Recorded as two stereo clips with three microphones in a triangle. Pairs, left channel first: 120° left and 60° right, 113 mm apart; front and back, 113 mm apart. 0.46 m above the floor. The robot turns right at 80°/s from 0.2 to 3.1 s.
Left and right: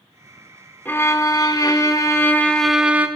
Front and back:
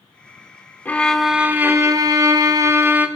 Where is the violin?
60° left, 0.8 m; by 3.1 s 120° right, 0.8 m.